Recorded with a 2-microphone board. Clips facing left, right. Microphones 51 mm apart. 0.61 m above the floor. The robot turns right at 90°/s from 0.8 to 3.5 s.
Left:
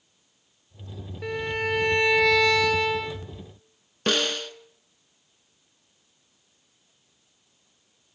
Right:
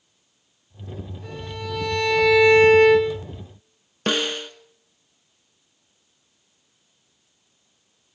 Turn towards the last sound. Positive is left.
turn(degrees=-15)  # may be behind; listen again after turning